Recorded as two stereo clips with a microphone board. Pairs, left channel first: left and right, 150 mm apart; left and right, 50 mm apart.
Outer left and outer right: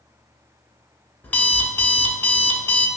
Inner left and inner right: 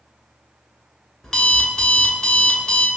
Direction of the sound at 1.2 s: 10° left (ahead or behind).